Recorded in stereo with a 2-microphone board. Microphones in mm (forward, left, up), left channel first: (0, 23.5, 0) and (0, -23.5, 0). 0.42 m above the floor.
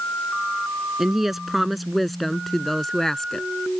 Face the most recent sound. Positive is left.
turn(degrees=10)  # may be behind; listen again after turning